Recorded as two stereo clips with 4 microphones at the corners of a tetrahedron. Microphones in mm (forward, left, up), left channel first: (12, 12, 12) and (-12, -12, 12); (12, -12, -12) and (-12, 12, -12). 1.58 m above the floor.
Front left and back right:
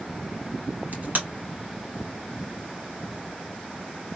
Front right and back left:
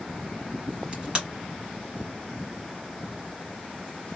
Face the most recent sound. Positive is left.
turn(degrees=-165)